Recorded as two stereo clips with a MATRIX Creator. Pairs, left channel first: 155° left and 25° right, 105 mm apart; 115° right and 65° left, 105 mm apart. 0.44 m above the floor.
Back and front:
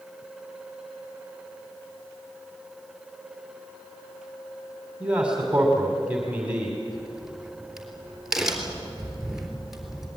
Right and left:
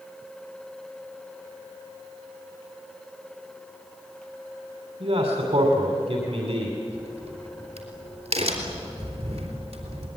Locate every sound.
5.0 s a man speaking: 55° left, 2.5 m
6.9 s a crack: 60° left, 3.5 m